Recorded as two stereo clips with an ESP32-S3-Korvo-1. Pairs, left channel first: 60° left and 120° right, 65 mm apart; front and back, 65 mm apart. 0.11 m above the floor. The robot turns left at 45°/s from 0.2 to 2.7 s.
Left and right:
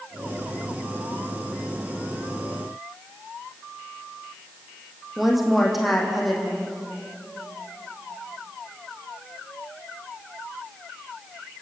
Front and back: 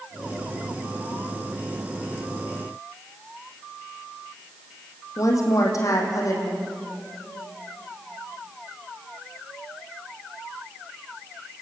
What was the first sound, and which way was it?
A woman speaking, 30° right.